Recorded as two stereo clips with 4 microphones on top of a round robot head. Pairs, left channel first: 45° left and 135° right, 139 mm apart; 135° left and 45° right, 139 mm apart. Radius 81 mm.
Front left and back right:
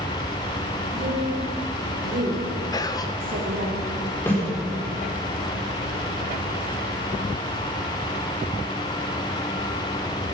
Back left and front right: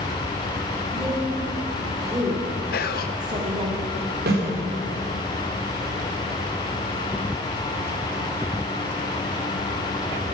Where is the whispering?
110° left, 1.1 m.